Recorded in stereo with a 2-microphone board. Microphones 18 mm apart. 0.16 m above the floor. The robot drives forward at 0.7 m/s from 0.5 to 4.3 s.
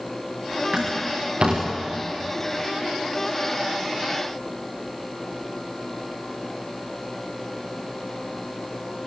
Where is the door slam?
70° right (ahead or behind), 9.5 m; by 1.6 s 75° right (ahead or behind), 9.5 m.